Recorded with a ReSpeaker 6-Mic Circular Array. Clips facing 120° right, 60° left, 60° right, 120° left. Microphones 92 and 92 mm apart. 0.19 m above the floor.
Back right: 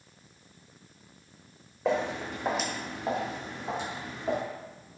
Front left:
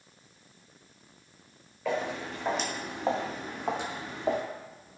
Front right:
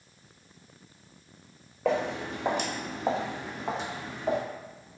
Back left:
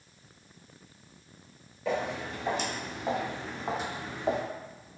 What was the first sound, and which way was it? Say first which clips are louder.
Footsteps: back right 3 dB, front right 3 dB; 60° right.